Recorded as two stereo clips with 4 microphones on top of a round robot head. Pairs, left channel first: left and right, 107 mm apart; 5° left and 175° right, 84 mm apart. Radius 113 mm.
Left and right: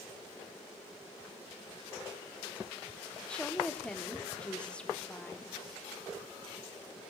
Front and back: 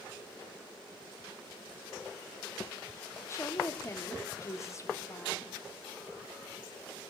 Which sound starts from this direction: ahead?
A woman speaking, at 3.3 s.